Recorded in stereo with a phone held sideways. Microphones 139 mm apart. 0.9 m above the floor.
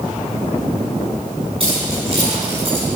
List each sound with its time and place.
1.6 s keys jangling: 45° right (ahead or behind), 7 m